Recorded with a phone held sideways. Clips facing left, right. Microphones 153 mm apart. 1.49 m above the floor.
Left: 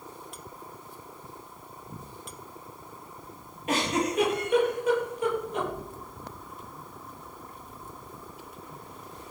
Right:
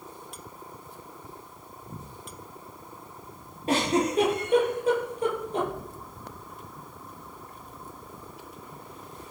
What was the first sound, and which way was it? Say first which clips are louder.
A giggle: right 3 dB; 35° right (ahead or behind).